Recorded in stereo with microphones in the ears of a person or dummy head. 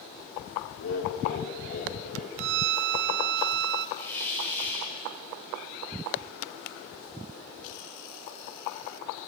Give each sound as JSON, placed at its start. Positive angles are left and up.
{"t": 0.8, "sound": "laughter", "side_deg": 70, "distance_m": 4.0}
{"t": 2.4, "sound": "a violin", "side_deg": -55, "distance_m": 0.6}
{"t": 4.0, "sound": "a hiss", "side_deg": 20, "distance_m": 6.5}